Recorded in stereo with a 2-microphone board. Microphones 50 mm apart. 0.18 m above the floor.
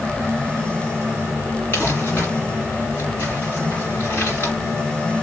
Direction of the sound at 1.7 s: 40° left (ahead or behind).